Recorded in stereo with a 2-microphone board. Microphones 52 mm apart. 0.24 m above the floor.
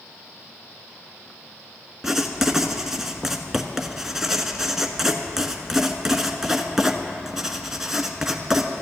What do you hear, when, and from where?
2.0 s writing: 10° right (ahead or behind), 1.0 m